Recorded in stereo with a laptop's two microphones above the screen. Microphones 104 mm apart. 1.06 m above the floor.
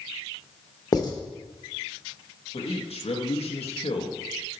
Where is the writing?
40° left (ahead or behind), 0.8 m.